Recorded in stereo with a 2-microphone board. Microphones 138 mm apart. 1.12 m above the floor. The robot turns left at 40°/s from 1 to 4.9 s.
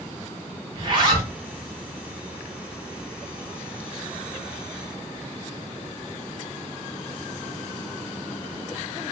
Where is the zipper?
35° right (ahead or behind), 1.2 m; by 1.3 s 25° right (ahead or behind), 1.2 m.